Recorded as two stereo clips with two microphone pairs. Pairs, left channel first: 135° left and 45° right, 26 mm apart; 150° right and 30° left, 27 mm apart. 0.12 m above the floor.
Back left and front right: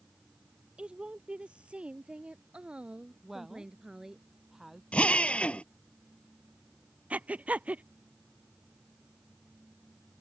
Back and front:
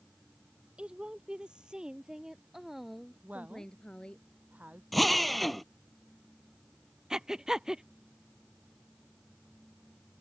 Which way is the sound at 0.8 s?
10° right.